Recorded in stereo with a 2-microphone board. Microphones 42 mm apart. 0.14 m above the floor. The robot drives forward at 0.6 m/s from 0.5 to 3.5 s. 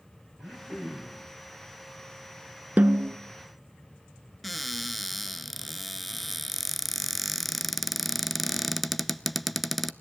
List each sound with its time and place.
0.4 s throat clearing: centre (ahead or behind), 6.5 m
2.8 s a snare drum: 40° right (ahead or behind), 0.6 m; by 3.2 s 45° right (ahead or behind), 0.5 m
4.4 s a cupboard door: centre (ahead or behind), 0.5 m